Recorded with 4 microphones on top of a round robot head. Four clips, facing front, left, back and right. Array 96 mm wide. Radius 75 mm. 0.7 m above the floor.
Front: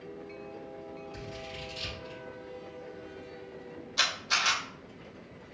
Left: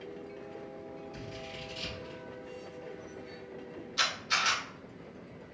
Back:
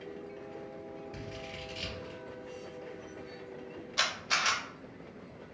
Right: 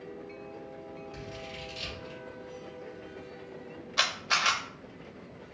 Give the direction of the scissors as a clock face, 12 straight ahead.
5 o'clock.